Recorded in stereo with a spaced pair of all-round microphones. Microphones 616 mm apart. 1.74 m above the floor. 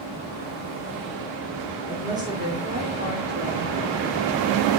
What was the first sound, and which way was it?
A woman speaking, 5° right (ahead or behind).